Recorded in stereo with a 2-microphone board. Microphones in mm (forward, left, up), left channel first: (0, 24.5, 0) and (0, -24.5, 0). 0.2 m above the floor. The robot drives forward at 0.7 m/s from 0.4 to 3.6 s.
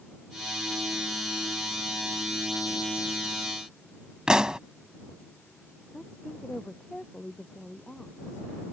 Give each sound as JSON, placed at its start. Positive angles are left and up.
{"t": 4.3, "sound": "a pop", "side_deg": -15}
{"t": 5.9, "sound": "a woman speaking", "side_deg": 15}